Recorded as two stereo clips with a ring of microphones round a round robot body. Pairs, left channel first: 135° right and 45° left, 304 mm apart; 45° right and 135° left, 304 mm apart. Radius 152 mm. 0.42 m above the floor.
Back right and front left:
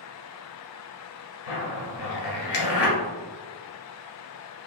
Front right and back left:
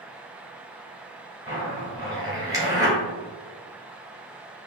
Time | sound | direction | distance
1.5 | a zipper | 145° right | 1.7 m